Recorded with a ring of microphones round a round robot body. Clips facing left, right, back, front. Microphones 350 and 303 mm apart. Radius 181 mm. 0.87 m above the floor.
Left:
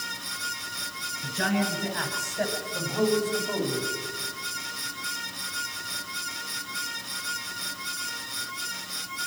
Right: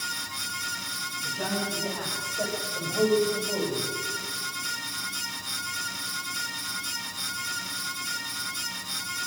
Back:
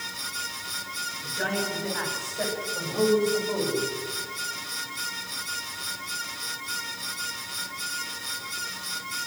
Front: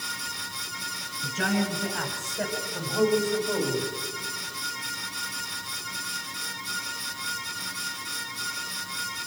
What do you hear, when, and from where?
1.2 s a man speaking: 40° left, 8 m; by 3.9 s 25° left, 6.5 m